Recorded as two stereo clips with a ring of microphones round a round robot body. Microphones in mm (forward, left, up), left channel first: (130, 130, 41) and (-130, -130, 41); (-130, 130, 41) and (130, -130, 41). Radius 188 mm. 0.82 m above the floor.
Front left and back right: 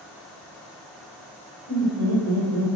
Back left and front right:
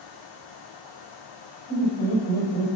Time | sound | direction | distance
1.7 | laughter | 175° right | 3.5 m